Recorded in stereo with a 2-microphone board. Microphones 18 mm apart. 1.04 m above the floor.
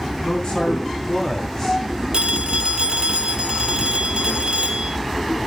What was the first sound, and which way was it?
A man speaking, 45° left (ahead or behind).